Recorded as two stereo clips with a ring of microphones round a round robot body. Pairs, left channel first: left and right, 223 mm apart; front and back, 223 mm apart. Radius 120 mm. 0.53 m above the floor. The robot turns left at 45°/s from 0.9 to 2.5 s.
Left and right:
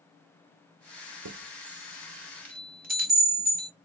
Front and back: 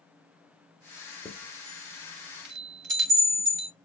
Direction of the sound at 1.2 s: 85° right.